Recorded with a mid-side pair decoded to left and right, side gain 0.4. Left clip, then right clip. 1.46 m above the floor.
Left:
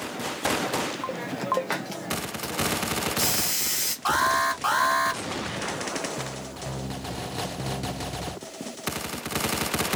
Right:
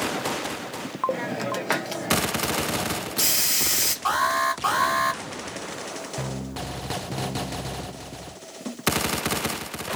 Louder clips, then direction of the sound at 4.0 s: Left 1 dB; 5° right.